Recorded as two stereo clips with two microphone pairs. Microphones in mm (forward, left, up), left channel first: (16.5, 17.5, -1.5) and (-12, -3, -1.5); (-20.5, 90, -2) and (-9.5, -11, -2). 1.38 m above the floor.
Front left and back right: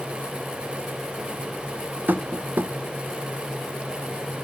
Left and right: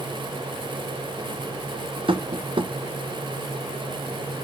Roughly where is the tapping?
Behind right.